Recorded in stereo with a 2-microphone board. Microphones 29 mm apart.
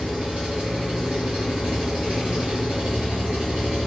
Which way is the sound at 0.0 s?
50° right (ahead or behind).